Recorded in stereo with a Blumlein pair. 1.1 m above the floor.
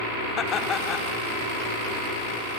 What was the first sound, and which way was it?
Laughter, 25° left.